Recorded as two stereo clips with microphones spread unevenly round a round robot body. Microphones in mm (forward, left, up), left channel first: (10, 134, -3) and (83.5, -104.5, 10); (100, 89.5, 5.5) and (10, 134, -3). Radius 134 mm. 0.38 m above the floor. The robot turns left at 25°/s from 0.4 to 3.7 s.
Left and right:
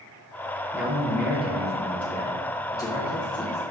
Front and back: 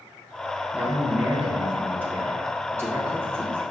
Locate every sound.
0.7 s a man speaking: 145° right, 0.8 m; by 3.7 s 140° left, 0.8 m